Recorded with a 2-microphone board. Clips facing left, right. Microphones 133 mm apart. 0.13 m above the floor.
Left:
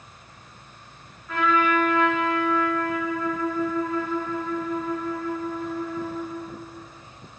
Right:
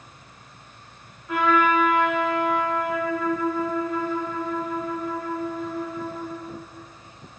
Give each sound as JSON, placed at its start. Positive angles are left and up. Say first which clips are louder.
{"t": 1.3, "sound": "a trumpet", "louder": "right 2 dB", "side_deg": -10, "distance_m": 1.1}